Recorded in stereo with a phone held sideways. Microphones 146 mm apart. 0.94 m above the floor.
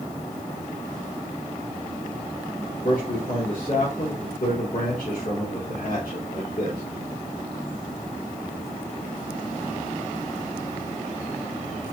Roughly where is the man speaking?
Left.